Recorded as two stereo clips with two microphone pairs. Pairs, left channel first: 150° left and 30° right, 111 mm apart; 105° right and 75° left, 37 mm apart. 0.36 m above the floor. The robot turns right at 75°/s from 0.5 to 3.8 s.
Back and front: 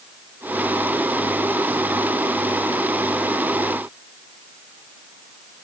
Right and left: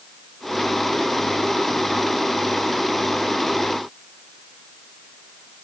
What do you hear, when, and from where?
Only background noise.